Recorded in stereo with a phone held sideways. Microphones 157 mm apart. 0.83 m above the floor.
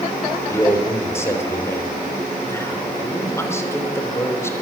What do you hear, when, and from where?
0.5 s a man speaking: 15° left (ahead or behind), 3.5 m